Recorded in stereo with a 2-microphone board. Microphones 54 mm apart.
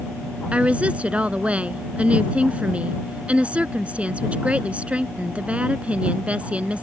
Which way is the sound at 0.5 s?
25° right (ahead or behind).